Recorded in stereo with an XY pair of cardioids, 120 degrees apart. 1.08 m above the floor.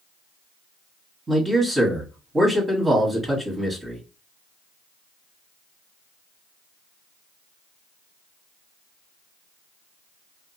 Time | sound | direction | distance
1.3 | a man speaking | 20° right | 1.2 m